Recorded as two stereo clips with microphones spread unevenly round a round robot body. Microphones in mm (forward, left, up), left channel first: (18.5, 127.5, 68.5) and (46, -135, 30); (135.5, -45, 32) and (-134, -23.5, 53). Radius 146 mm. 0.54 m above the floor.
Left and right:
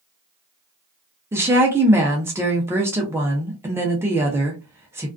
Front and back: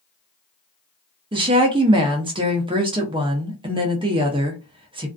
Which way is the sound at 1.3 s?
130° right.